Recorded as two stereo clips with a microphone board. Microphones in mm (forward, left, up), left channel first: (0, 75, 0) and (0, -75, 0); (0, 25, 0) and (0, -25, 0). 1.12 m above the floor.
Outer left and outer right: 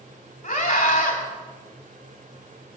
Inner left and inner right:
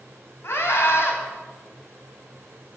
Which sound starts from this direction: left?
A scream, at 0.4 s.